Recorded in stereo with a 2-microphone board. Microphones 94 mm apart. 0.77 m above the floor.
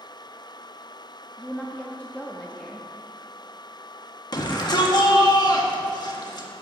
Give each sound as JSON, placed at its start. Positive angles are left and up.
{"t": 1.4, "sound": "a woman speaking", "side_deg": 15, "distance_m": 0.9}
{"t": 4.3, "sound": "a shout", "side_deg": 50, "distance_m": 1.5}